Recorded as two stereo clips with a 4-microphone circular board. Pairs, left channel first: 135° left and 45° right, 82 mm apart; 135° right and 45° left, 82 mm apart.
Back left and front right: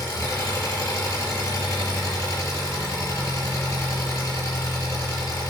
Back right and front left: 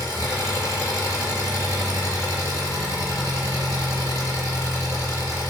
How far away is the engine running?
About 2.0 m.